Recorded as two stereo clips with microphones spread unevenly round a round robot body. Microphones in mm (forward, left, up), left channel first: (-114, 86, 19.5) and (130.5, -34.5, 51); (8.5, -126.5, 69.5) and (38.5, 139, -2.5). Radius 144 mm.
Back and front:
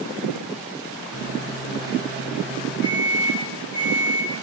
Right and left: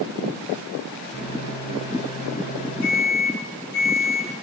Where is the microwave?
155° right, 4.5 m.